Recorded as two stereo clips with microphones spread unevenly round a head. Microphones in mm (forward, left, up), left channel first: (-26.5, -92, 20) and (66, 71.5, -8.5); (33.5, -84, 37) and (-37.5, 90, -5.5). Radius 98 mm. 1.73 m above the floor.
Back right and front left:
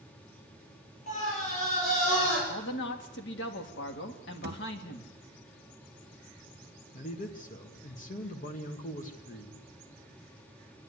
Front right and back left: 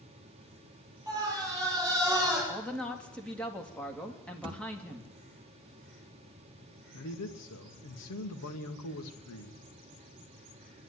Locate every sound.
1.1 s a scream: 175° right, 10 m
2.5 s a man speaking: 150° right, 2.5 m
4.4 s a thud: 45° left, 1.3 m
6.9 s a man speaking: 70° right, 1.7 m